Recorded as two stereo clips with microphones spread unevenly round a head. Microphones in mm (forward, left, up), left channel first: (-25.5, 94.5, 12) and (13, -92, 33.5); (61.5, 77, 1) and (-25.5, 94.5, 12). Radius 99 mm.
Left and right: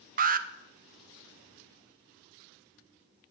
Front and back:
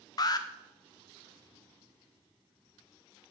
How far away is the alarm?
About 0.7 m.